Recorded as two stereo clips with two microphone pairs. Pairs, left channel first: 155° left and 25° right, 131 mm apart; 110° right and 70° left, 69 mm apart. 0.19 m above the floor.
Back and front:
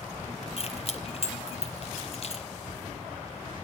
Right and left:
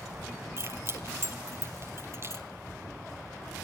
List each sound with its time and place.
0.6 s keys jangling: 120° left, 3.5 m